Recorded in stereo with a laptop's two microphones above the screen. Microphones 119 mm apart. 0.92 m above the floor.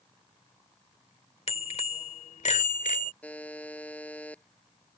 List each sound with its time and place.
1.5 s a bicycle bell: 60° left (ahead or behind); by 3.1 s 85° left
3.2 s a buzzer: 10° left (ahead or behind)